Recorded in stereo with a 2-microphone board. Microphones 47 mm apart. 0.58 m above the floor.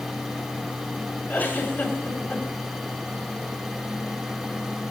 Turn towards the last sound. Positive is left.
turn(degrees=40)  # may be behind; listen again after turning